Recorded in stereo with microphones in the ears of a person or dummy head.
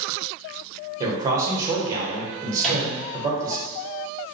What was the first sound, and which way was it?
A man speaking, 25° right (ahead or behind).